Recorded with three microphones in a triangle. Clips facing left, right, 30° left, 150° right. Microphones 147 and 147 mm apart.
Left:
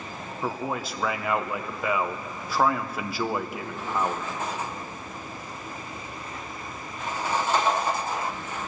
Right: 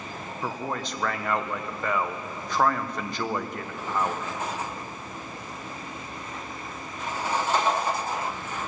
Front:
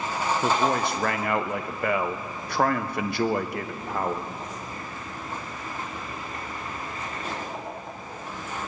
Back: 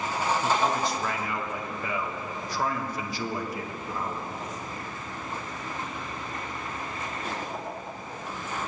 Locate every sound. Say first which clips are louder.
0.4 s a man speaking: left 2 dB, front 4 dB; 5° left, 0.9 m